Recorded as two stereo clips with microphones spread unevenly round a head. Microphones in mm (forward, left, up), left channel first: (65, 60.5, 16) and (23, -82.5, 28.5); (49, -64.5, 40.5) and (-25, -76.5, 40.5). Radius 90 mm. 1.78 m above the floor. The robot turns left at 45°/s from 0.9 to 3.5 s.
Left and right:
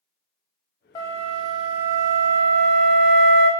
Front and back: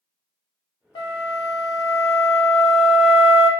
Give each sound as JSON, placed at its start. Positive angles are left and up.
{"t": 0.9, "sound": "a flute", "azimuth_deg": 5, "distance_m": 0.8}